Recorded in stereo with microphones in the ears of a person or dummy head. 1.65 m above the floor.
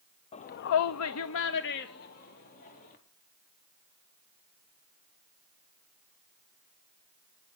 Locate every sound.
0.3 s a shout: 30° left (ahead or behind), 0.6 m; by 3.0 s 45° left (ahead or behind), 2.5 m